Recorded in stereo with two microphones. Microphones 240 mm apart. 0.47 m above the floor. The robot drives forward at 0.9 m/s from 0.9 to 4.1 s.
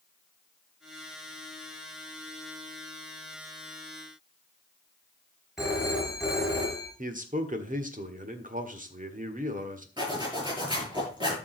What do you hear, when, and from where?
5.6 s a phone ringing: centre (ahead or behind), 6 m
7.0 s a man speaking: 30° right (ahead or behind), 1.5 m
10.0 s a zipper: 15° right (ahead or behind), 8 m